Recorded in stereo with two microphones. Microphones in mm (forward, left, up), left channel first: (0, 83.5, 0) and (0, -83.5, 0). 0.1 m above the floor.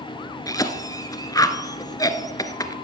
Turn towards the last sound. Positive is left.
turn(degrees=20)  # may be behind; listen again after turning